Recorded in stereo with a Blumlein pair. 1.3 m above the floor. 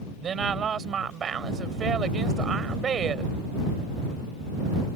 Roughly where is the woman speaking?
Ahead.